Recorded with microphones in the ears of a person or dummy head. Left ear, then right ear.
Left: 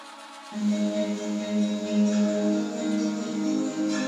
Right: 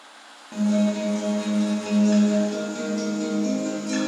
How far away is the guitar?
About 0.9 m.